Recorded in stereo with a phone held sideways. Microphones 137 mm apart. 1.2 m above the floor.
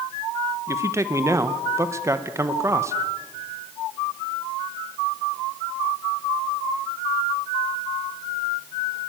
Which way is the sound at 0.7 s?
25° right (ahead or behind).